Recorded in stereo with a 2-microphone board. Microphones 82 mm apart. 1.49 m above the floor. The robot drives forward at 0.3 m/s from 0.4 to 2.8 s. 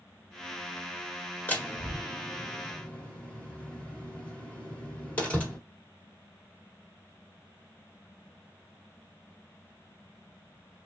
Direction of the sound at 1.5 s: 20° left (ahead or behind).